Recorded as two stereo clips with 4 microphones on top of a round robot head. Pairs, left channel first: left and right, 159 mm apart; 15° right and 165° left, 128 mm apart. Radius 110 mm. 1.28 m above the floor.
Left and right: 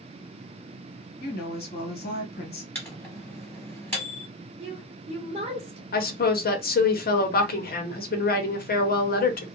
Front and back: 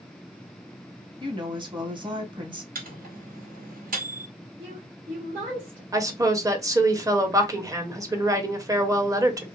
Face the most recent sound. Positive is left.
turn(degrees=105)